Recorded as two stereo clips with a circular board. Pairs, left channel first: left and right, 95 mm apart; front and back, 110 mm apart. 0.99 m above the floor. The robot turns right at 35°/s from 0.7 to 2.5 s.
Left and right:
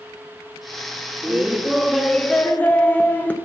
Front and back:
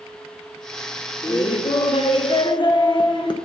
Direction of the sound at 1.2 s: 20° right.